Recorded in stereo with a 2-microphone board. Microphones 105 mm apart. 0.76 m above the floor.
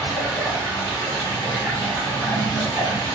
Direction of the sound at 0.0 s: 15° right (ahead or behind).